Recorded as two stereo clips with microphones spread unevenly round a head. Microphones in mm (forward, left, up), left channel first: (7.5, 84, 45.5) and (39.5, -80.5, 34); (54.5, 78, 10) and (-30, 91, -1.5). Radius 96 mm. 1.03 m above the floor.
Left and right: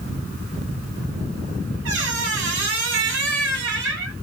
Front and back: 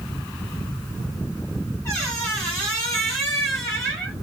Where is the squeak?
70° right, 1.2 m.